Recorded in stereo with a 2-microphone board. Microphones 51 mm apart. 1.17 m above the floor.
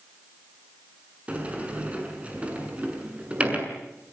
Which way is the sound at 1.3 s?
25° right (ahead or behind).